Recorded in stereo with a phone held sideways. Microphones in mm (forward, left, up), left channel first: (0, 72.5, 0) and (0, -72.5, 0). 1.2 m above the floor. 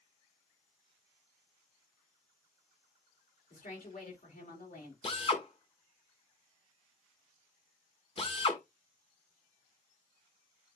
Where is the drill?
40° left (ahead or behind), 1.7 m.